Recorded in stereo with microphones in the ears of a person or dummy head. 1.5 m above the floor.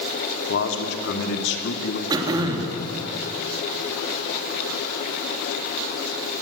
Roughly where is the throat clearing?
Centre.